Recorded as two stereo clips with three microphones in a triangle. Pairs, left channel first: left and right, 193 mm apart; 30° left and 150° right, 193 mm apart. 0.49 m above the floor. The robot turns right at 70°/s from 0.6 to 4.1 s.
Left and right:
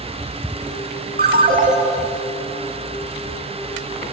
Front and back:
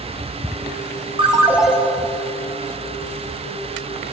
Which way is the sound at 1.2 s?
95° right.